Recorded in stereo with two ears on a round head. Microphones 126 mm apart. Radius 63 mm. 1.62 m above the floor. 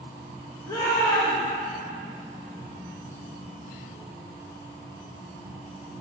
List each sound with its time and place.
0.7 s a shout: 25° left (ahead or behind), 2 m